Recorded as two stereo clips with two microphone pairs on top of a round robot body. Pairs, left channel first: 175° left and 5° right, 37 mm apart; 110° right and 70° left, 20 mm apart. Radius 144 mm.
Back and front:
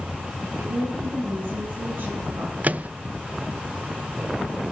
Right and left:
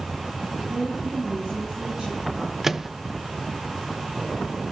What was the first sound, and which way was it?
A woman speaking, 25° left.